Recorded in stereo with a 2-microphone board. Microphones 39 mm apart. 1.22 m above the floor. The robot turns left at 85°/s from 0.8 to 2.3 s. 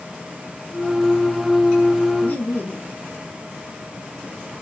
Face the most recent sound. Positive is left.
turn(degrees=55)  # may be behind; listen again after turning